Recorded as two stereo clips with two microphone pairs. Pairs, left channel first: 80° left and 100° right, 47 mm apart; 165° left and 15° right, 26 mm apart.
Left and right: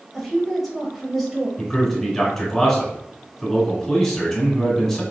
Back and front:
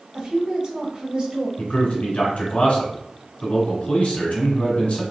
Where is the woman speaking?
10° right, 1.6 m.